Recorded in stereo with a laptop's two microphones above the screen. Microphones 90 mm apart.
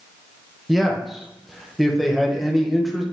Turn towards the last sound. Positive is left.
turn(degrees=0)  # may be behind; listen again after turning